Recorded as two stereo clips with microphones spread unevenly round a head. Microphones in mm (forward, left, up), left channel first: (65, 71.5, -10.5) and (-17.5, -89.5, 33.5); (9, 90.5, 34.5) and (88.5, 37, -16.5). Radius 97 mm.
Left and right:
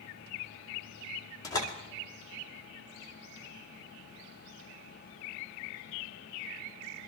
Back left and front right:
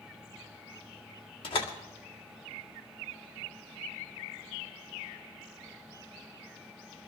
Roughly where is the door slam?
Behind left.